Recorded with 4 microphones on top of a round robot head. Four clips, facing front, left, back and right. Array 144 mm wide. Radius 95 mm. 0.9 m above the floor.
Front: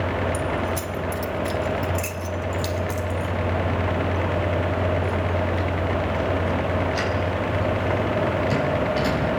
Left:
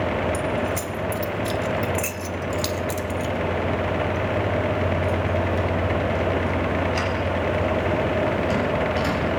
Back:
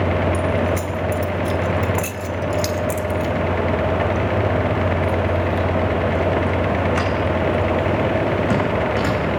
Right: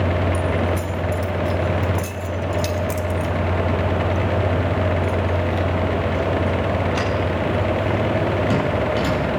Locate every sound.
0.3 s keys jangling: 60° left, 2.5 m; by 9.2 s 155° right, 8.5 m